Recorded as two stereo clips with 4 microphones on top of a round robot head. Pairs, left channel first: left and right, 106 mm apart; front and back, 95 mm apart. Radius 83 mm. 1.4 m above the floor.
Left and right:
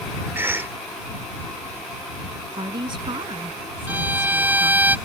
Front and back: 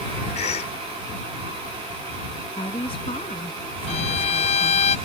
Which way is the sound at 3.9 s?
15° right.